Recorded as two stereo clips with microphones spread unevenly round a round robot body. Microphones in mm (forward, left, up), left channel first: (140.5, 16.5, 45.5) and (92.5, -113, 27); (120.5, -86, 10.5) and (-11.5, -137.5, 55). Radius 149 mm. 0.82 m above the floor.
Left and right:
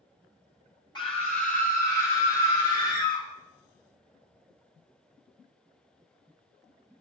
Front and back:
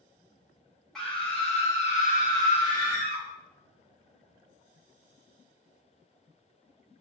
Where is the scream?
55° left, 0.7 m; by 3.2 s 75° left, 2 m.